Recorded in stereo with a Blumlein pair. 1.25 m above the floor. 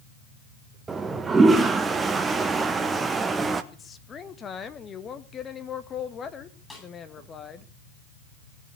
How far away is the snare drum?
About 9 m.